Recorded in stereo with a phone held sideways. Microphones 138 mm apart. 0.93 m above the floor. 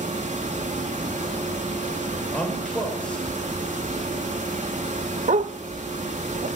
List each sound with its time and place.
0.0 s a fan: 60° right (ahead or behind), 2.5 m
2.3 s a man speaking: 5° left (ahead or behind), 4.5 m
5.3 s a dog barking: 60° right (ahead or behind), 0.6 m